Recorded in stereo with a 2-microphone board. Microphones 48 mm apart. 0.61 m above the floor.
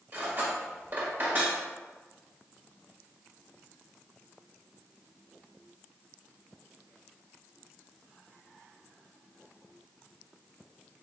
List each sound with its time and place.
0.1 s cutlery clinking: 40° right (ahead or behind), 1.2 m